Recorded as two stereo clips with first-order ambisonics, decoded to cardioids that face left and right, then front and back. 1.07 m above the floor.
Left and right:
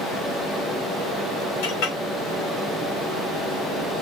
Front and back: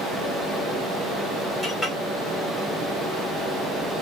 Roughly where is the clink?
Left.